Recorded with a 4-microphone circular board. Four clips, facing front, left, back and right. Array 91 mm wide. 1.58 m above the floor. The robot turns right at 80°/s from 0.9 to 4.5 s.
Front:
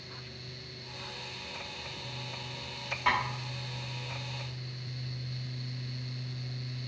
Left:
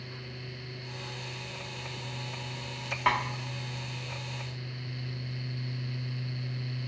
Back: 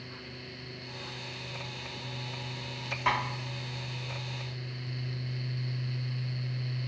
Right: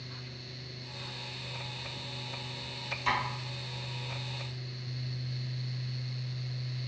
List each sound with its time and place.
3.1 s tapping: 90° left, 0.8 m; by 3.2 s 100° left, 0.8 m